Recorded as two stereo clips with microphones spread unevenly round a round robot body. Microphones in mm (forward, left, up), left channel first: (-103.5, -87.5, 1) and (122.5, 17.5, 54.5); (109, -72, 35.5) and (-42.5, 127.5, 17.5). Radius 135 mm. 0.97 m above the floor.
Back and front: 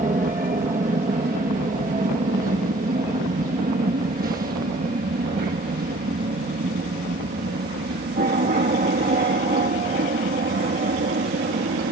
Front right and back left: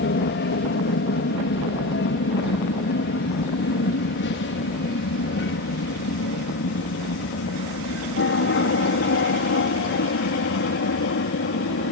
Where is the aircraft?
35° right; by 11.9 s 25° right.